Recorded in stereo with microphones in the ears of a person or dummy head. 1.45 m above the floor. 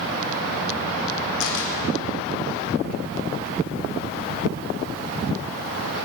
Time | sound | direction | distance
1.4 | a camera shutter | 70° left (ahead or behind) | 4 m